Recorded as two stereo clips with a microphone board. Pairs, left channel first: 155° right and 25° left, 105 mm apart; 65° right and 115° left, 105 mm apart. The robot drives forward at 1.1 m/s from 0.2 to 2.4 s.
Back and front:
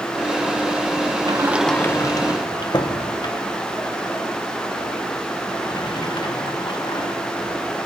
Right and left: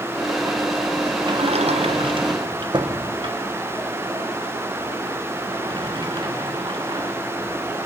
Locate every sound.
1.3 s a sliding door: 65° left, 0.5 m; by 7.1 s 155° left, 1.1 m